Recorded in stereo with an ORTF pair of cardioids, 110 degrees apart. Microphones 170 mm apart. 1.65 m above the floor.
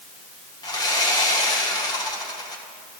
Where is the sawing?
25° left, 1.6 m.